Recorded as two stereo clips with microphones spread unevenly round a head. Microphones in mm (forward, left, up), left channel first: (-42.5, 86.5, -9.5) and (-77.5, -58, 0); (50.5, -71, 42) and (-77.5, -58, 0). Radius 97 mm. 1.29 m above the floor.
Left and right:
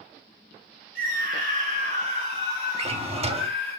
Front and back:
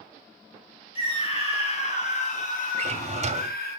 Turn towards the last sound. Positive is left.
turn(degrees=-145)